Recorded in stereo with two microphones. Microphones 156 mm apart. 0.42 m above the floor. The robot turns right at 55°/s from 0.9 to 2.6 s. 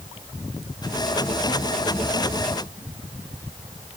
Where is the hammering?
I don't hear hammering.